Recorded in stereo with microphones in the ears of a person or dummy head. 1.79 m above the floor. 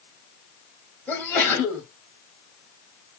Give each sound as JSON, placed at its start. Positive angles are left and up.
{"t": 1.1, "sound": "a sneeze", "side_deg": 5, "distance_m": 1.6}